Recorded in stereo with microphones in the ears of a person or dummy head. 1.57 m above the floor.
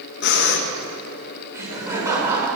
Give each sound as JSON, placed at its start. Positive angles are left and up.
{"t": 0.2, "sound": "breathing", "side_deg": 65, "distance_m": 2.0}
{"t": 1.5, "sound": "laughter", "side_deg": -20, "distance_m": 6.5}